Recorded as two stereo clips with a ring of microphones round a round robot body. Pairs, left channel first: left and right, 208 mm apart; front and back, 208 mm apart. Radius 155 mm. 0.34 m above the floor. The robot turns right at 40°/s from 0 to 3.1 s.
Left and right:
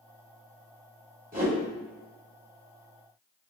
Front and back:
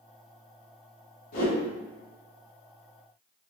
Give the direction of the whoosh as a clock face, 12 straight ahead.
2 o'clock.